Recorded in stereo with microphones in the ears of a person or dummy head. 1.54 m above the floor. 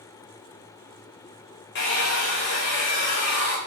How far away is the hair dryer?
About 0.7 m.